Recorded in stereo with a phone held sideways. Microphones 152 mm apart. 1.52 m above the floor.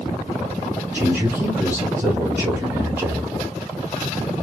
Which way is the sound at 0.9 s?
15° right (ahead or behind).